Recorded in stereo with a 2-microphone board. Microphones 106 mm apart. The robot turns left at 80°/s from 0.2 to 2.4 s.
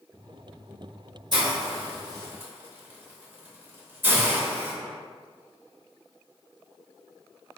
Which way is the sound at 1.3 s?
45° right (ahead or behind).